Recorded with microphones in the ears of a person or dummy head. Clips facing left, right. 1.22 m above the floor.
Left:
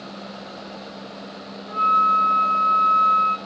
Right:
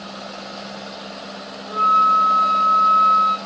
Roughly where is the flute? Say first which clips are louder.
Right 3 dB; right.